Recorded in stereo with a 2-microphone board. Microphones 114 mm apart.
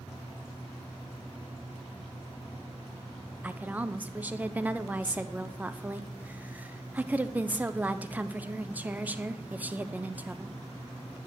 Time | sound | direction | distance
3.4 | a woman speaking | 15° right (ahead or behind) | 0.7 m